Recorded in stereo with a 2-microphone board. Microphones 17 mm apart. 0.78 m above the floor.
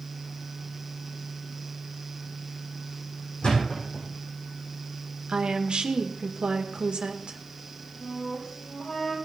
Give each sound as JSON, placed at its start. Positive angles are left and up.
{"t": 3.4, "sound": "a thud", "side_deg": 85, "distance_m": 9.0}
{"t": 5.3, "sound": "a woman speaking", "side_deg": -75, "distance_m": 1.9}
{"t": 8.0, "sound": "a flute", "side_deg": 75, "distance_m": 5.5}